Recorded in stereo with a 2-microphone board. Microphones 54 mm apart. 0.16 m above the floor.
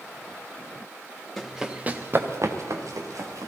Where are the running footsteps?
Centre (ahead or behind), 1.5 m; by 3.5 s 85° right, 3 m.